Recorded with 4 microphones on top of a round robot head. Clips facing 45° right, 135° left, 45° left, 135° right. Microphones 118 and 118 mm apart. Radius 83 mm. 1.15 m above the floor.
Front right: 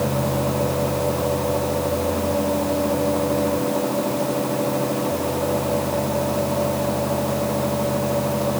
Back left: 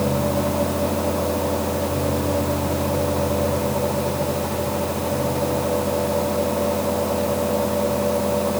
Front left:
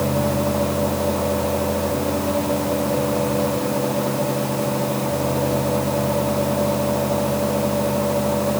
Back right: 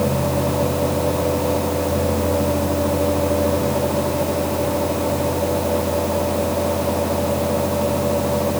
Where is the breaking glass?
I don't hear breaking glass.